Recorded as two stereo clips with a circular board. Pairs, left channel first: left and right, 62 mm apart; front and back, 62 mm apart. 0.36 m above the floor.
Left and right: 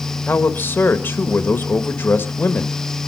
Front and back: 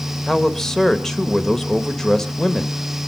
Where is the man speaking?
75° left, 1.2 m.